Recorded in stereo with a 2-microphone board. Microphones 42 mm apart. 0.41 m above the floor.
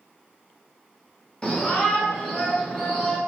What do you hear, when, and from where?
1.4 s a shout: 20° left (ahead or behind), 0.9 m; by 3.2 s 15° left (ahead or behind), 2 m